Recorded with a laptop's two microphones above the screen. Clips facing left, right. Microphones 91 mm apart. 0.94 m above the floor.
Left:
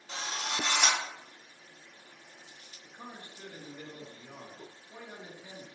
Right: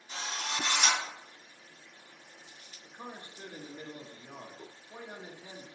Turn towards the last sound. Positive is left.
turn(degrees=-25)  # may be behind; listen again after turning